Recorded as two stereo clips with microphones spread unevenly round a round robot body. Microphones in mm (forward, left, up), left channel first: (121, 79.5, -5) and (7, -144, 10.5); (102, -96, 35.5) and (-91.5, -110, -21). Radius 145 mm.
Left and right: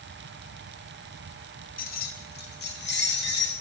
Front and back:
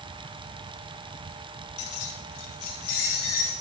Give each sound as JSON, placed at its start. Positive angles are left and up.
{"t": 1.8, "sound": "keys jangling", "azimuth_deg": 10, "distance_m": 1.2}